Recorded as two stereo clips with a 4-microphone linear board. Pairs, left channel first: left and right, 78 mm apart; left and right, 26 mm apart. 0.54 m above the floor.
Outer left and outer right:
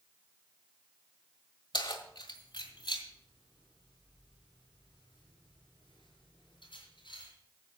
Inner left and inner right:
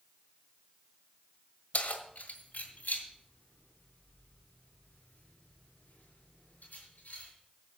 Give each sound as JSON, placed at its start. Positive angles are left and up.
{"t": 1.7, "sound": "keys jangling", "side_deg": 70, "distance_m": 1.5}